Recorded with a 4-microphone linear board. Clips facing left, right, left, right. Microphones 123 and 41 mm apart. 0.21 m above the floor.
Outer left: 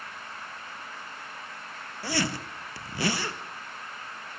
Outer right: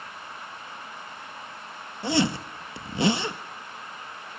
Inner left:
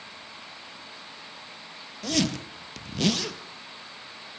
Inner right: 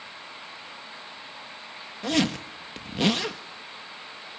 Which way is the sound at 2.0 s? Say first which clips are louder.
Outer right 6 dB, inner right 2 dB; 20° right (ahead or behind).